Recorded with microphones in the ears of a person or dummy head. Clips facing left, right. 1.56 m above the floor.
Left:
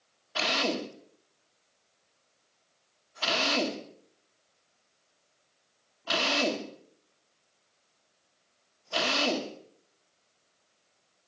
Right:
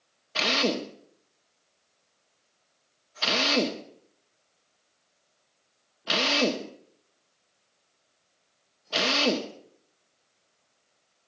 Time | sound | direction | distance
0.3 | a drill | 35° right (ahead or behind) | 1.5 m